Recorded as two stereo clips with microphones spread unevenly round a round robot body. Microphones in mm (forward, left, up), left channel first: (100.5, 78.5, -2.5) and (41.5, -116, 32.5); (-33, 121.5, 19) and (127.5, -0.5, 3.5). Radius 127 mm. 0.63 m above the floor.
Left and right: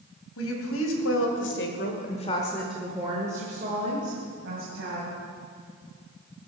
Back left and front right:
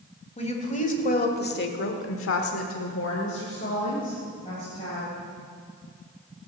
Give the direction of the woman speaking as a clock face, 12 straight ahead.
9 o'clock.